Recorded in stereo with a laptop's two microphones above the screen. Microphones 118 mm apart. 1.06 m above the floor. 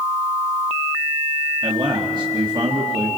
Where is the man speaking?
40° right (ahead or behind), 1.8 m.